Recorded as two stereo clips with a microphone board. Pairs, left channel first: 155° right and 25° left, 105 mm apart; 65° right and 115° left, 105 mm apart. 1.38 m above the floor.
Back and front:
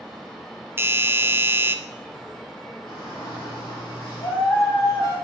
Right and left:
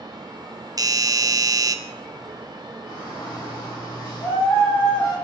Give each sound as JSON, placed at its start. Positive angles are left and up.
{"t": 0.8, "sound": "a doorbell", "azimuth_deg": 80, "distance_m": 0.6}
{"t": 2.9, "sound": "a shout", "azimuth_deg": -130, "distance_m": 3.5}